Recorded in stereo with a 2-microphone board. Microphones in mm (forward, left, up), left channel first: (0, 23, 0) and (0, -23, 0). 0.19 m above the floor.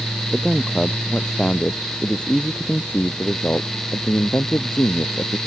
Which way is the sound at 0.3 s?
Centre (ahead or behind).